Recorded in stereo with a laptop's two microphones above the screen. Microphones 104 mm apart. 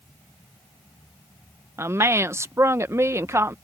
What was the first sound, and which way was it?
A woman speaking, 25° right (ahead or behind).